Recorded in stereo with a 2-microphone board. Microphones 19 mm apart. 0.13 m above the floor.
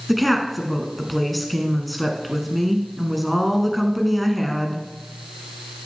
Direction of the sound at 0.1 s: Centre (ahead or behind).